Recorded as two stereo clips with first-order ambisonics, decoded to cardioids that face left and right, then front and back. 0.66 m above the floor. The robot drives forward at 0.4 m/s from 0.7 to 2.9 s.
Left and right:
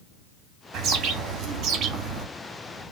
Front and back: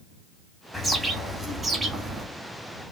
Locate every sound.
0.7 s a bird: 90° right, 1.4 m; by 2.3 s 120° right, 1.6 m